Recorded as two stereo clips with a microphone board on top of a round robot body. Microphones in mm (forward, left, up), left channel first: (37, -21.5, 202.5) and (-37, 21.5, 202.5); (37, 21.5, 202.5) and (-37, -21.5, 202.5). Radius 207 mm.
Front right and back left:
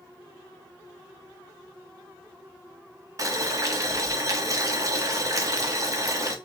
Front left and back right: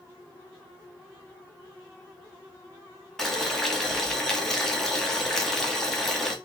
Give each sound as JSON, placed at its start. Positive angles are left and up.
{"t": 3.2, "sound": "boiling", "azimuth_deg": 115, "distance_m": 1.4}